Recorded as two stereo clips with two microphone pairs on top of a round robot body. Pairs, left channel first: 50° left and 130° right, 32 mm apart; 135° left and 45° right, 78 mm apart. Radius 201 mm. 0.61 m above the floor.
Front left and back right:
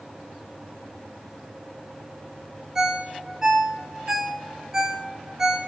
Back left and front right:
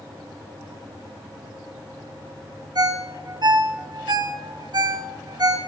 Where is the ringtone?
60° right, 1.3 m.